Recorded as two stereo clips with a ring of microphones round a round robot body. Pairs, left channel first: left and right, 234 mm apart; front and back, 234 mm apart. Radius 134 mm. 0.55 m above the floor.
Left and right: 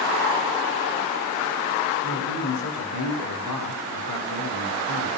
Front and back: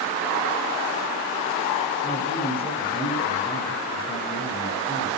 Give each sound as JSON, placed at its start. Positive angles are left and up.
{"t": 2.0, "sound": "a man speaking", "azimuth_deg": 70, "distance_m": 6.5}